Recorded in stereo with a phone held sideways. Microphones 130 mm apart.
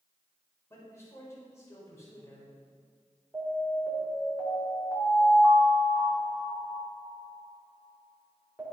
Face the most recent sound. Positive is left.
turn(degrees=-15)  # may be behind; listen again after turning